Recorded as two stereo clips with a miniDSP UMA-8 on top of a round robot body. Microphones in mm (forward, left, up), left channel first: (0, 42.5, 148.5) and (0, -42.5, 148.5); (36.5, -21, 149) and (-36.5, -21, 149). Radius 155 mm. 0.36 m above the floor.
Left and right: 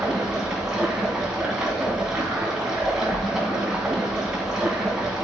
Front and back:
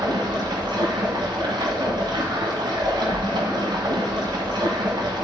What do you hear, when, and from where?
0.0 s running water: 175° right, 1.9 m